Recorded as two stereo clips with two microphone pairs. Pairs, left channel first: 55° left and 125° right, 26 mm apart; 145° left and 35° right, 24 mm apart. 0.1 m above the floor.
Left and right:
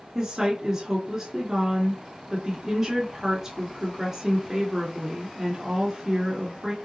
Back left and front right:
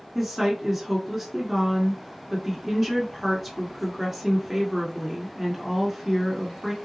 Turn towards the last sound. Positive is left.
turn(degrees=-120)